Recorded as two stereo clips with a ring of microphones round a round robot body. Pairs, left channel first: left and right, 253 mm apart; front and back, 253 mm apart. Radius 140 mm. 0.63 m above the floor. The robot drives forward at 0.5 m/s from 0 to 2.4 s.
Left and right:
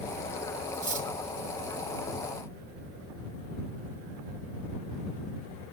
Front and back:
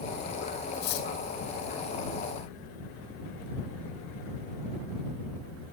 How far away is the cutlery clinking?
About 2.5 m.